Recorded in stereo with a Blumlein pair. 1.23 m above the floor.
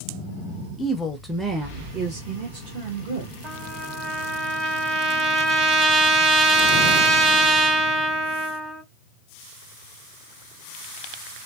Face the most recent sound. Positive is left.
turn(degrees=-30)